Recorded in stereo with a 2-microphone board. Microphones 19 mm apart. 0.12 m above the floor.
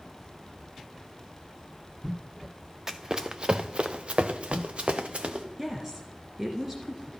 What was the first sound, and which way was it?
Running footsteps, 20° right (ahead or behind).